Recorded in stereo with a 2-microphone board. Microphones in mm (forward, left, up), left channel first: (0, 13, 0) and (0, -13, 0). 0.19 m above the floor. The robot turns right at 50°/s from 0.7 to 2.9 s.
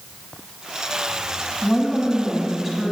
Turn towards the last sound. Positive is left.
turn(degrees=-10)  # may be behind; listen again after turning